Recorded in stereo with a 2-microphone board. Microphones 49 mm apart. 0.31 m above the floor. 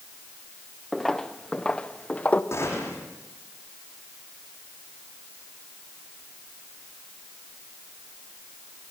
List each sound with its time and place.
0.9 s footsteps: 5° left (ahead or behind), 2.0 m; by 2.4 s 35° left (ahead or behind), 2 m
2.5 s a gunshot: 60° left (ahead or behind), 10 m